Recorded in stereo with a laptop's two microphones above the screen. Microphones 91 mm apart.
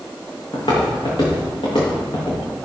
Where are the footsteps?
75° left (ahead or behind), 6 m; by 2.4 s 65° left (ahead or behind), 6.5 m.